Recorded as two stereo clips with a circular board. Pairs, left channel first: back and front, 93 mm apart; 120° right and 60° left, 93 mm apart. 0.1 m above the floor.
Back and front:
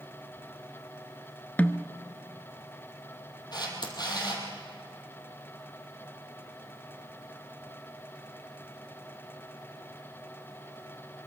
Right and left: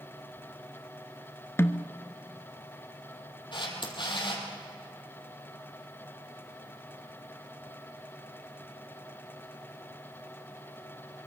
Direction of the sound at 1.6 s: 130° right.